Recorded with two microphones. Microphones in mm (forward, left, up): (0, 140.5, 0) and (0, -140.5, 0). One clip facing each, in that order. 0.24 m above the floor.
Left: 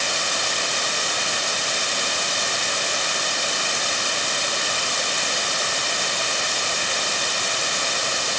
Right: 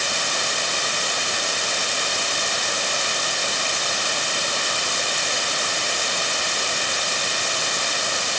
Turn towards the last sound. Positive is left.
No sound to turn to.